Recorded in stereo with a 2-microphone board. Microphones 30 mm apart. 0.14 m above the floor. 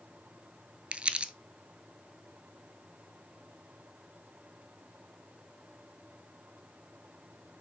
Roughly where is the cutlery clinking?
I don't hear cutlery clinking.